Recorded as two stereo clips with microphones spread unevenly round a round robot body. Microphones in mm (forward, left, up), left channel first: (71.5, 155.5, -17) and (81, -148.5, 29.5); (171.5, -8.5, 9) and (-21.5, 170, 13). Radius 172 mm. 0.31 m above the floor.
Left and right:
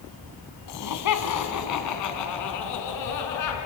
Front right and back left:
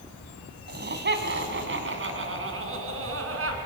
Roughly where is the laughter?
Left.